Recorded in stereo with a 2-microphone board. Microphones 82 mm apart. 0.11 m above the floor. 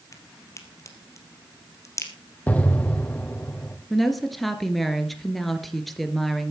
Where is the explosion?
20° left (ahead or behind), 2 m.